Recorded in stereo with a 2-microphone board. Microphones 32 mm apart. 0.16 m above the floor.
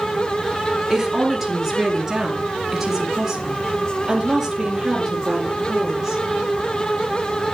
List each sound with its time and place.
0.9 s a woman speaking: 10° right (ahead or behind), 2.5 m